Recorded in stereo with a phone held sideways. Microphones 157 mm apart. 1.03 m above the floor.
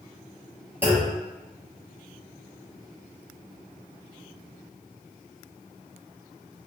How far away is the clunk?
About 1.8 m.